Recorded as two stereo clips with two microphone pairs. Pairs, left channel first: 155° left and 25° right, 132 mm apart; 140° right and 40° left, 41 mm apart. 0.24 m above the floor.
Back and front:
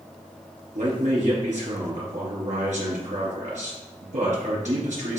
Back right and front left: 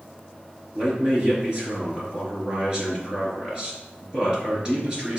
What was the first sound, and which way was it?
A man speaking, 25° right.